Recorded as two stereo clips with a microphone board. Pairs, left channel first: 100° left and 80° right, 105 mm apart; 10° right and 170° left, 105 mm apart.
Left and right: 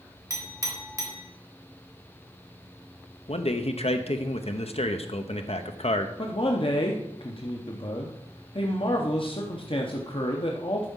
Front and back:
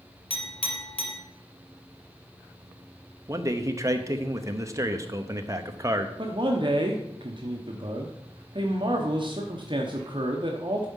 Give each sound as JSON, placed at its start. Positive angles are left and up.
{"t": 0.3, "sound": "a clink", "azimuth_deg": -20, "distance_m": 2.5}
{"t": 3.3, "sound": "a man speaking", "azimuth_deg": 110, "distance_m": 0.8}
{"t": 6.2, "sound": "a man speaking", "azimuth_deg": 130, "distance_m": 0.9}